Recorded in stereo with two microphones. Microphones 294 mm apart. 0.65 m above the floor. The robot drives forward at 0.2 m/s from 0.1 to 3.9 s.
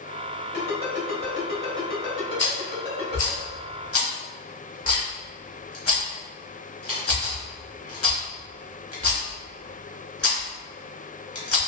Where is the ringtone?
50° left (ahead or behind), 1.3 m; by 3.4 s 35° left (ahead or behind), 1.8 m.